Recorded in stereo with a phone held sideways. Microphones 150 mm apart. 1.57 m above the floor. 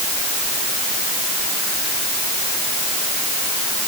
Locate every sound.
Only background noise.